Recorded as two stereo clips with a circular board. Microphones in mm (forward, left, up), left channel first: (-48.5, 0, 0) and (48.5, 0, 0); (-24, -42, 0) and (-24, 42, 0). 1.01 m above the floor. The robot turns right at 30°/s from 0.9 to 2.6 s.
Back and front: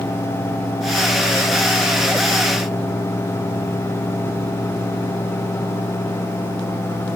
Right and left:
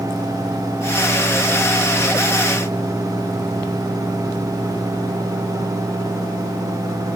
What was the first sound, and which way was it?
Only background noise.